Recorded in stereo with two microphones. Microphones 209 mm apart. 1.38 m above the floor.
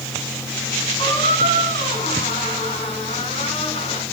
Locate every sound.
1.0 s a squeak: 30° left (ahead or behind), 5.5 m